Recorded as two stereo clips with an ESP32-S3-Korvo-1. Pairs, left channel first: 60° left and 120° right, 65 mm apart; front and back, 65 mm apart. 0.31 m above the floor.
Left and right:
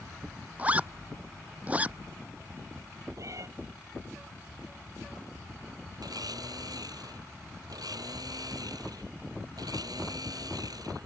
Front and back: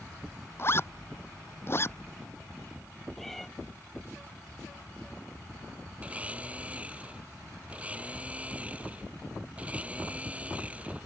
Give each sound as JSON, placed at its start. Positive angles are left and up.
{"t": 0.6, "sound": "a zipper", "azimuth_deg": -50}
{"t": 3.2, "sound": "a cat meowing", "azimuth_deg": -85}
{"t": 6.0, "sound": "a blender", "azimuth_deg": -110}